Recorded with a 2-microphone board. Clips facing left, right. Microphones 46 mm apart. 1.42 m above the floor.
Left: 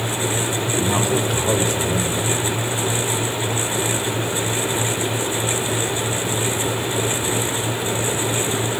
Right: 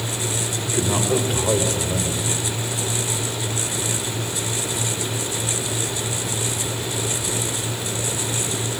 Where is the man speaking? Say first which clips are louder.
Even; 5° right (ahead or behind), 5 m.